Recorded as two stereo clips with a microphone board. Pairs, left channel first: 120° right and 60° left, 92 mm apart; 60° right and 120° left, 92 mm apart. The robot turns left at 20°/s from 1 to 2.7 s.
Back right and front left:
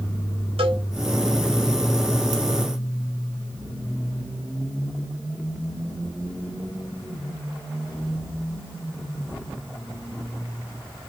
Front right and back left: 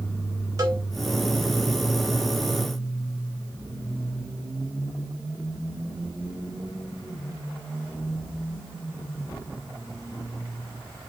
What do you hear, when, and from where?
0.6 s a cowbell: 70° left, 3.5 m